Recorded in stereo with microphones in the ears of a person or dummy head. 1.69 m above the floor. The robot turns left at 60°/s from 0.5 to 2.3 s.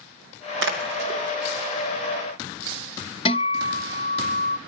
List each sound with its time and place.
0.6 s a splash: 65° right (ahead or behind), 2.5 m; by 1.2 s 30° right (ahead or behind), 2.5 m
3.2 s a guitar: 25° left (ahead or behind), 0.5 m